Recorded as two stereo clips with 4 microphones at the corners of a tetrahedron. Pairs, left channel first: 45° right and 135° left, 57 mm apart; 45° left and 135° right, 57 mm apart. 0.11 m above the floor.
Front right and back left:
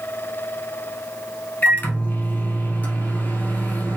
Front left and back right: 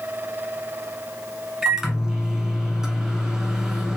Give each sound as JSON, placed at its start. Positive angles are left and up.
{"t": 1.6, "sound": "a microwave", "azimuth_deg": -60, "distance_m": 1.0}